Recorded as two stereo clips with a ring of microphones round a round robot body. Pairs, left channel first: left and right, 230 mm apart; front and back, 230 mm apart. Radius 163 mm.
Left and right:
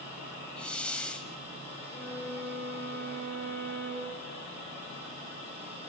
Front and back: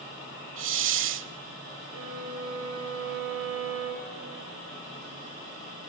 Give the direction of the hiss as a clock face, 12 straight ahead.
6 o'clock.